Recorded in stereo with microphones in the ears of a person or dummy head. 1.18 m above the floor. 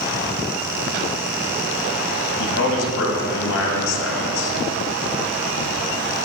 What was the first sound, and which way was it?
A man speaking, 60° left (ahead or behind).